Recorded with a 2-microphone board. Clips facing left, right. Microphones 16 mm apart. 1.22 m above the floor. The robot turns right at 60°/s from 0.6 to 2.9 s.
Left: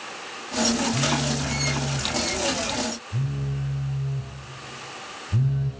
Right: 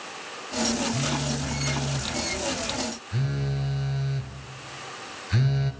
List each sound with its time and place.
0.9 s a phone buzzing: 130° left, 4 m; by 5.7 s 115° right, 4 m